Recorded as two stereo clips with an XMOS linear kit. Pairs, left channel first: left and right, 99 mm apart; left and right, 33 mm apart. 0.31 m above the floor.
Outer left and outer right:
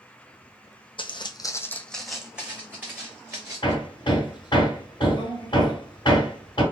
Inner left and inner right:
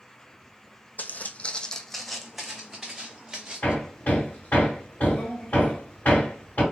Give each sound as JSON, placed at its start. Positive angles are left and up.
{"t": 1.0, "sound": "footsteps", "side_deg": 60, "distance_m": 0.6}
{"t": 3.6, "sound": "hammering", "side_deg": 50, "distance_m": 1.8}